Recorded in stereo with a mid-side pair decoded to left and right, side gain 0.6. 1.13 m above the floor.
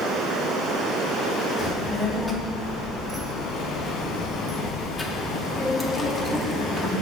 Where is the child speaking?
15° left, 1.4 m.